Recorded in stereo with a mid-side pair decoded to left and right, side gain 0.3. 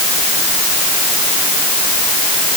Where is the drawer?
No drawer in this recording.